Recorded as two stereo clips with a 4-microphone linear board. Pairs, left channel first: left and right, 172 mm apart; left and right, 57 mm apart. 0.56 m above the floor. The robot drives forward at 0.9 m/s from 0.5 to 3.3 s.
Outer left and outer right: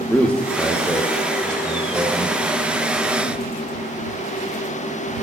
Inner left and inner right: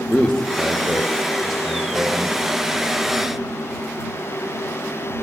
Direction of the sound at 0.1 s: 5° left (ahead or behind).